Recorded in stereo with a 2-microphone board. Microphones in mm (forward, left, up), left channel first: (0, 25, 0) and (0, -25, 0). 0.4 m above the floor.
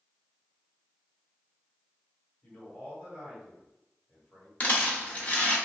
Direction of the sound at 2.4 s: 25° left (ahead or behind).